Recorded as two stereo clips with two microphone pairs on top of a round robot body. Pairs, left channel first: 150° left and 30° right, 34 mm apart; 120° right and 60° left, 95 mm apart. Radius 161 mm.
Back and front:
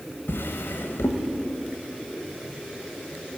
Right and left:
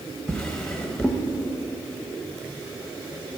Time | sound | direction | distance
0.3 | a drawer | 160° left | 0.8 m